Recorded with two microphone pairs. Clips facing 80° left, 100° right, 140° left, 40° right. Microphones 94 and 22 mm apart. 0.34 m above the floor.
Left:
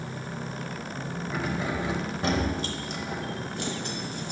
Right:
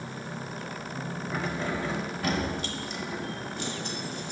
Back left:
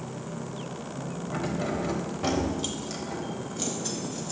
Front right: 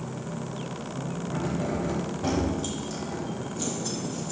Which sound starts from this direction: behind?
Keys jangling, at 1.3 s.